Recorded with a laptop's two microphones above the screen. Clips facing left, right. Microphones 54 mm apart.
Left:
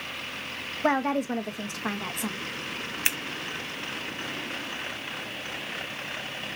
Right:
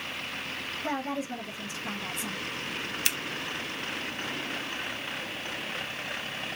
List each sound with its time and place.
0.8 s a woman speaking: 60° left (ahead or behind), 1.1 m
3.0 s scissors: 30° left (ahead or behind), 0.5 m